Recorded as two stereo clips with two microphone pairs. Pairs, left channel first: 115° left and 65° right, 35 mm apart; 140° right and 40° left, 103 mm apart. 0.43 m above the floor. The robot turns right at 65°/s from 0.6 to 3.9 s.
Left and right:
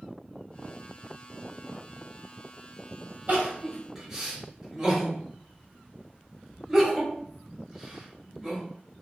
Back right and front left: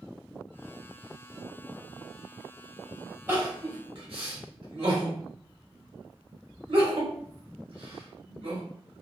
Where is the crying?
25° right, 1.0 m; by 8.6 s 15° left, 1.0 m.